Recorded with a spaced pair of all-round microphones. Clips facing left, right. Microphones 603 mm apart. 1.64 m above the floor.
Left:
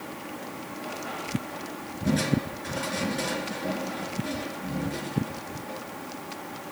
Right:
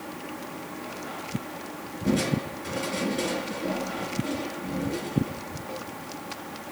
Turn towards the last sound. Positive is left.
turn(degrees=20)  # may be behind; listen again after turning